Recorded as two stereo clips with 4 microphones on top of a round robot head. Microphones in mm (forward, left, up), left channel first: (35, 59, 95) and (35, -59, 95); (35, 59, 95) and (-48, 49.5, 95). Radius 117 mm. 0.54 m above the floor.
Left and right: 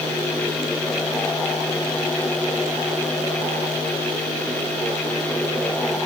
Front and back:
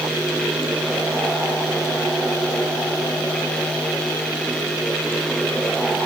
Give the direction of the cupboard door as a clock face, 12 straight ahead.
No cupboard door in this recording.